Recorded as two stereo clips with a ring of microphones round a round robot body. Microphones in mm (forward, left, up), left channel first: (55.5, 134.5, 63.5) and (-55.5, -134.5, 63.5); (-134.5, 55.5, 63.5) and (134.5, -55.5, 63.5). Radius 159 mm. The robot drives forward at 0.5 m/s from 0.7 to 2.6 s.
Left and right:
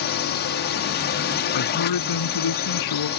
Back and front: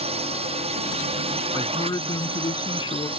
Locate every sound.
0.0 s a drone: 35° left; by 3.2 s 40° left
1.5 s a man speaking: 80° left